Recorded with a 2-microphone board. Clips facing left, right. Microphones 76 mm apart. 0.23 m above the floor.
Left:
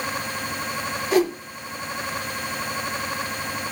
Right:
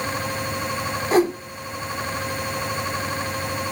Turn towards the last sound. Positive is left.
turn(degrees=-35)  # may be behind; listen again after turning